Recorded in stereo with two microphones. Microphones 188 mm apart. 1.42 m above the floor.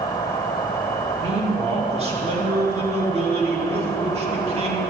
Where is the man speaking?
35° right (ahead or behind), 2 m.